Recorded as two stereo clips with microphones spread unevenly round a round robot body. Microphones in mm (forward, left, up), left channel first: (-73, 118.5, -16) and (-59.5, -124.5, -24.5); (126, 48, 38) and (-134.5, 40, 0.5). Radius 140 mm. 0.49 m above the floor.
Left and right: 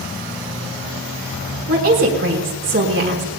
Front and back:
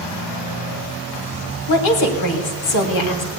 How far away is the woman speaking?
About 3 m.